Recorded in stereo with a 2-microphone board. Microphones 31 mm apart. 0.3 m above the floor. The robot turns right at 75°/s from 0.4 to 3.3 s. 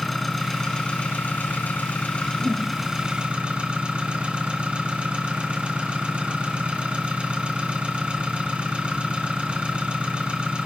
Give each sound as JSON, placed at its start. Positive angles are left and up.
{"t": 0.0, "sound": "an engine running", "azimuth_deg": 5, "distance_m": 1.9}
{"t": 2.4, "sound": "a whoosh", "side_deg": -50, "distance_m": 1.7}